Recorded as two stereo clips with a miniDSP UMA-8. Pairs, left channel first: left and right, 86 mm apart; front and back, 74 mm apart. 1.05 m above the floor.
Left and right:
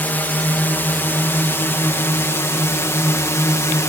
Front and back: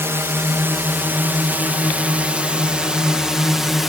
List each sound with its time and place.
0.0 s a drone: 150° left; by 3.9 s 95° left